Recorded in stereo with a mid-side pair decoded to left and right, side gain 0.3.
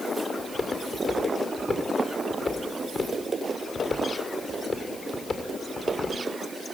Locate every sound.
0.4 s footsteps: 55° left, 7.5 m